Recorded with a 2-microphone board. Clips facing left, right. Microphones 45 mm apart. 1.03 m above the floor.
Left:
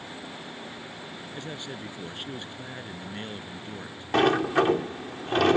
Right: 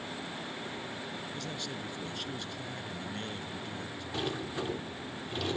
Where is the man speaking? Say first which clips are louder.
Left 2 dB; 25° left (ahead or behind).